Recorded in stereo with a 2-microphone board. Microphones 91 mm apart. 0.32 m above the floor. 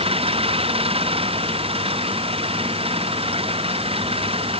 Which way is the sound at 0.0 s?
85° right.